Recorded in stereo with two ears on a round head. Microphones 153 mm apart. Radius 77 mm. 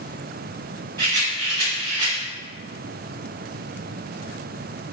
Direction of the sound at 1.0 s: 25° right (ahead or behind).